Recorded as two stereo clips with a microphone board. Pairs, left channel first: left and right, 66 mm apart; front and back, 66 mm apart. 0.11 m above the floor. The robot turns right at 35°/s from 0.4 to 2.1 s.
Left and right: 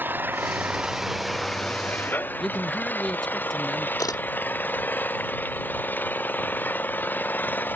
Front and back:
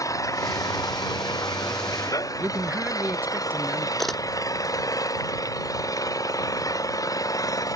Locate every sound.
0.0 s an engine running: 30° right; by 7.8 s 30° left
2.4 s a man speaking: 170° left
4.0 s a camera shutter: 90° left